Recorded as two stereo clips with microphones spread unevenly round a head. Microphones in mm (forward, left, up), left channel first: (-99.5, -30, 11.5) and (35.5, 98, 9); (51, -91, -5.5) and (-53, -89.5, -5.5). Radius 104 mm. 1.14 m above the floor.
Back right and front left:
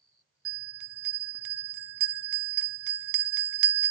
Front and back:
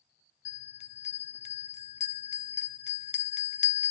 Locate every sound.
0.5 s a bell: 20° left, 0.5 m